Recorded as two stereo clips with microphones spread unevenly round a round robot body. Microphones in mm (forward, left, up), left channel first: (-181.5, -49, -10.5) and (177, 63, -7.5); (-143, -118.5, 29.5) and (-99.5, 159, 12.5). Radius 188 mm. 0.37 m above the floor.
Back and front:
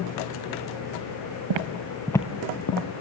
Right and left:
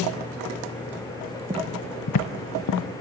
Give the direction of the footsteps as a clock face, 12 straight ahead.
12 o'clock.